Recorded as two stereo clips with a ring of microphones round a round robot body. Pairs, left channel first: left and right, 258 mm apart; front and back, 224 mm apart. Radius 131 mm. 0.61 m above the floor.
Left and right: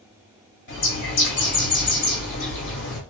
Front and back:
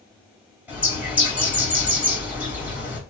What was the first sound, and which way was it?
A bird, 95° left.